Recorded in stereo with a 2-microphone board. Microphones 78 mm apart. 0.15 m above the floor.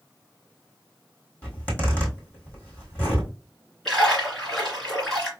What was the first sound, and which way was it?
A zipper, 20° left (ahead or behind).